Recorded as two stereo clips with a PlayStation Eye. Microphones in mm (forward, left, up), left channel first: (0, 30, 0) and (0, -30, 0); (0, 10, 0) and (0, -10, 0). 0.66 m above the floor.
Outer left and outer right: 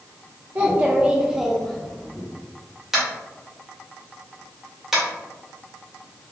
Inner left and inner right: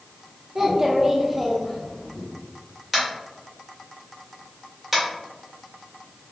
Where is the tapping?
5° right (ahead or behind), 1.5 m.